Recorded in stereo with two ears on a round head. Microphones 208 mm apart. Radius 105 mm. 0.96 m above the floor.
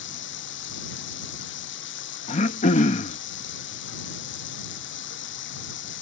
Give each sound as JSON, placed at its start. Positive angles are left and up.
{"t": 0.0, "sound": "running water", "side_deg": 55}
{"t": 2.3, "sound": "throat clearing", "side_deg": 30}